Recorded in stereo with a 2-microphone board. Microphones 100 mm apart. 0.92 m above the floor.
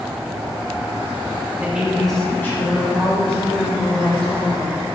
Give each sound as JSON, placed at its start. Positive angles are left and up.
{"t": 1.6, "sound": "a woman speaking", "side_deg": -15, "distance_m": 1.7}